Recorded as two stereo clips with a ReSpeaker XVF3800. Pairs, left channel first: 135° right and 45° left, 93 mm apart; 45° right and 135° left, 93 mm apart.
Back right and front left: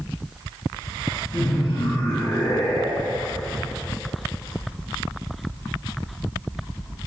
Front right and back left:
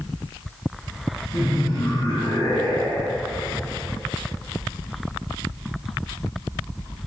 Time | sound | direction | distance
1.3 | laughter | 80° right | 3.5 m